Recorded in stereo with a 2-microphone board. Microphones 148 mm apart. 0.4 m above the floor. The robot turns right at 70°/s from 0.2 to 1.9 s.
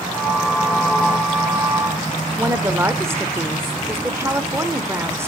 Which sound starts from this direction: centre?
A woman speaking, at 2.4 s.